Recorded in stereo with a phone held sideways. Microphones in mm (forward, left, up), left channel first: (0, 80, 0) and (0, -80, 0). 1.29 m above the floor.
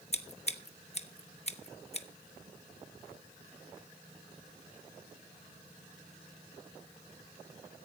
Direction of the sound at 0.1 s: 40° left (ahead or behind).